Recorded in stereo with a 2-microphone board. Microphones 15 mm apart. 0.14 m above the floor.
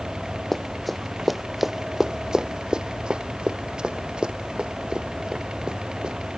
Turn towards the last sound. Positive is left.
turn(degrees=-80)